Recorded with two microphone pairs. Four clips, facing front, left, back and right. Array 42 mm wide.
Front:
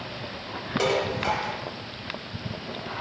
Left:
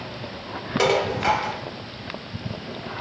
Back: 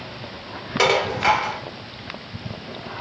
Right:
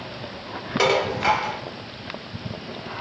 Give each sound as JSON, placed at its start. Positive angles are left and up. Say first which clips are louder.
{"t": 0.8, "sound": "dishes clattering", "louder": "right 1 dB, back 7 dB", "azimuth_deg": -165, "distance_m": 1.0}